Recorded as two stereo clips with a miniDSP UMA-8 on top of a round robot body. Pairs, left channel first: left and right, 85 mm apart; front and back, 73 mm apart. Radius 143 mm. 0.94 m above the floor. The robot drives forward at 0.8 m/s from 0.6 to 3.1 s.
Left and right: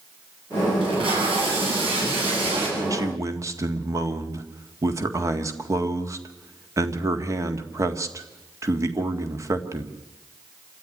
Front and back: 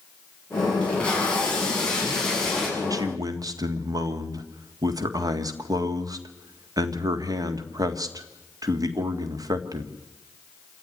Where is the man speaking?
140° right, 1.6 m; by 9.9 s 145° right, 1.8 m.